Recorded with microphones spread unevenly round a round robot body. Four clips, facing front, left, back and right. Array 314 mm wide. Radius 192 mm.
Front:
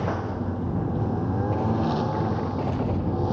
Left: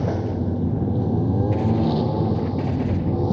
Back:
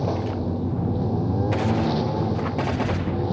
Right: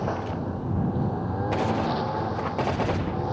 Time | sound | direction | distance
0.0 | a lawn mower | 105° left | ?